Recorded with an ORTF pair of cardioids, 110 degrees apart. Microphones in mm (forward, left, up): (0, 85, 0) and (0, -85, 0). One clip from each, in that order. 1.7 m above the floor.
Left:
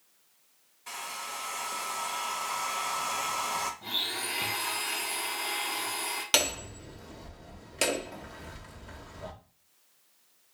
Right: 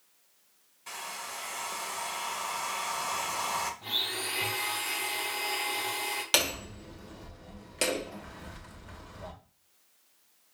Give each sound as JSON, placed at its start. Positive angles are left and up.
{"t": 0.9, "sound": "a hair dryer", "azimuth_deg": -5, "distance_m": 1.0}
{"t": 3.8, "sound": "a blender", "azimuth_deg": -5, "distance_m": 2.5}
{"t": 6.3, "sound": "hammering", "azimuth_deg": 5, "distance_m": 1.2}